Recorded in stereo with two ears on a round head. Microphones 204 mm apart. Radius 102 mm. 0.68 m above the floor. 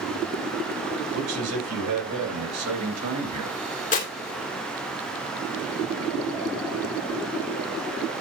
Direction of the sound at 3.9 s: 35° left (ahead or behind).